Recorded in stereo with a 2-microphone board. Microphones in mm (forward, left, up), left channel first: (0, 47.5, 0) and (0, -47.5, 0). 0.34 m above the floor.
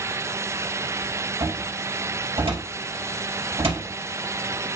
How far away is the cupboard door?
About 4.5 m.